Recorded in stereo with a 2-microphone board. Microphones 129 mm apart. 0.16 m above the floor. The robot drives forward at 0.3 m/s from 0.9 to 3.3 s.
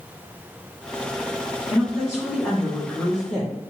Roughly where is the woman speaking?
Centre.